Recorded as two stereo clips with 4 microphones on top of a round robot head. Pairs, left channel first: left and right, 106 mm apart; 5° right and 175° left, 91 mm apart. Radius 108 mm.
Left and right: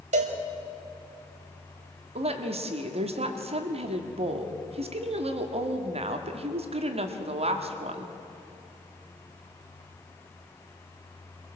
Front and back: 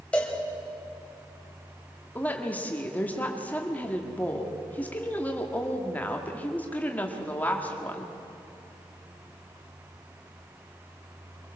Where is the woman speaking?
80° right, 1.9 m.